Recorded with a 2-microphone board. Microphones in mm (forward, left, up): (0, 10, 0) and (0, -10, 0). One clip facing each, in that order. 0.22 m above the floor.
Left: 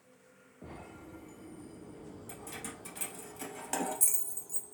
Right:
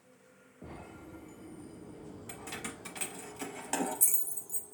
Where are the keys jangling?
35° right (ahead or behind), 1.3 m; by 4.7 s 25° left (ahead or behind), 1.2 m.